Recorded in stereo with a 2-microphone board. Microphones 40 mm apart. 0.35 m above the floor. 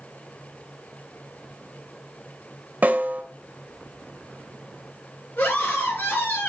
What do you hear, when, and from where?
2.8 s a snare drum: 40° right (ahead or behind), 1.4 m
5.4 s a scream: 50° left (ahead or behind), 5.5 m